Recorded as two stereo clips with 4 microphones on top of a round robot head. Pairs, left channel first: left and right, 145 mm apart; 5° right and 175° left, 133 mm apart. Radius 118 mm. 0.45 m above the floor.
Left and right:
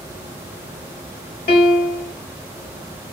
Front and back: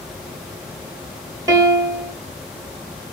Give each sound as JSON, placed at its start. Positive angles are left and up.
{"t": 1.5, "sound": "a piano", "azimuth_deg": 105, "distance_m": 1.3}